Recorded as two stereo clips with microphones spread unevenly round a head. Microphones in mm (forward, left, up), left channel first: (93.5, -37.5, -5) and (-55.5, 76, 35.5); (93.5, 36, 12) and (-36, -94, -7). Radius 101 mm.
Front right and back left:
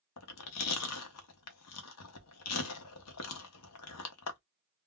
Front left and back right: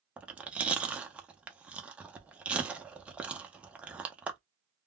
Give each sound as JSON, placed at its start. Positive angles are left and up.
{"t": 0.2, "sound": "chewing", "azimuth_deg": -50, "distance_m": 0.7}